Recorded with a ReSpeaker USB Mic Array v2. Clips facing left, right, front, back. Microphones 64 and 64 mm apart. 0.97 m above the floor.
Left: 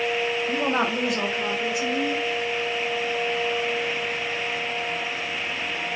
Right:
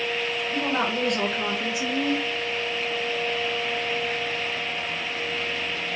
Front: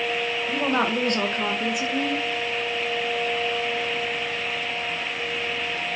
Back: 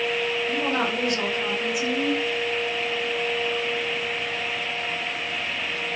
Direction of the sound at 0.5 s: 70° left.